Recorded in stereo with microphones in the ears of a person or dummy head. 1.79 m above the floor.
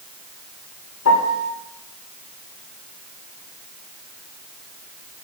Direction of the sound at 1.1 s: 80° left.